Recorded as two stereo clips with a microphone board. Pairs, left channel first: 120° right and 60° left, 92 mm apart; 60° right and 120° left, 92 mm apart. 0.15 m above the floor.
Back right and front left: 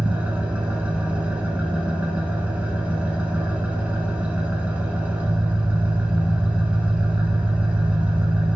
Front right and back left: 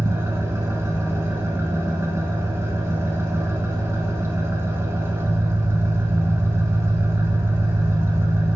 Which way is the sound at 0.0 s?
120° left.